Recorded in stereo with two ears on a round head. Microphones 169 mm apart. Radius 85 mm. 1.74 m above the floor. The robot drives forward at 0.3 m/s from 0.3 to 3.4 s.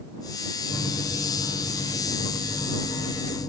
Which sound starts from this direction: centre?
A microwave, at 0.7 s.